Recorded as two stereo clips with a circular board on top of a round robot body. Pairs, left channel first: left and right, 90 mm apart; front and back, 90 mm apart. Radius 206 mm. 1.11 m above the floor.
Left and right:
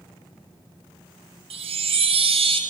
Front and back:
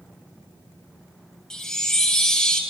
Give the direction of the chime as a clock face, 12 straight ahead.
3 o'clock.